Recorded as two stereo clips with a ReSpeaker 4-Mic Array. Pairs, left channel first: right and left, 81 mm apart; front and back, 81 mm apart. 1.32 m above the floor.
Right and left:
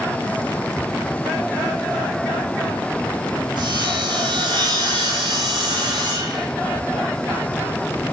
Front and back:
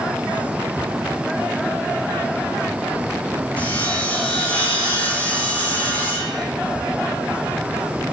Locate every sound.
3.6 s sawing: 70° left, 4 m